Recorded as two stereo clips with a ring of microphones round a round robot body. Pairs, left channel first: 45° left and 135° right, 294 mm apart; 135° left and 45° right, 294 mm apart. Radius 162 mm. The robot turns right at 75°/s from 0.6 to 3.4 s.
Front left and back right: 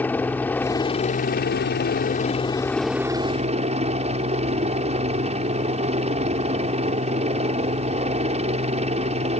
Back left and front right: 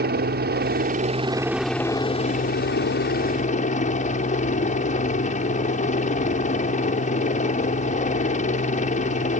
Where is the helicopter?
35° right; by 9.4 s 175° left.